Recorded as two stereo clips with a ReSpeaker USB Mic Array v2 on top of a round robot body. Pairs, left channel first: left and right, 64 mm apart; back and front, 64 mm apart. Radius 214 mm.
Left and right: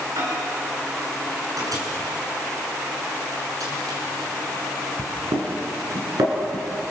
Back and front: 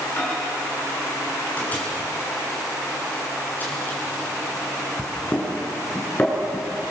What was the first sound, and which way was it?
A microwave, 115° right.